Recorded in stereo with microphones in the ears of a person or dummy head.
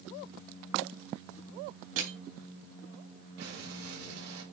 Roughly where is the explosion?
Right.